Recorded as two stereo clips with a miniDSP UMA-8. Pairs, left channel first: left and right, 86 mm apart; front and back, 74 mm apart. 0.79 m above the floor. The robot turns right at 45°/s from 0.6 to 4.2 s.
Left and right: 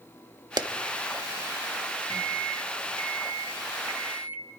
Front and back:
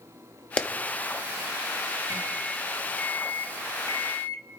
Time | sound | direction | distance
0.6 | a clap | 70° right | 1.2 m
2.1 | a microwave | 120° right | 1.5 m